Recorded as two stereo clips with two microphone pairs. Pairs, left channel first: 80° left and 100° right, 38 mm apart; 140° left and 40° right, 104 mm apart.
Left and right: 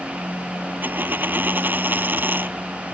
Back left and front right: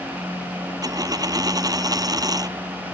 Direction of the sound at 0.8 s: 85° right.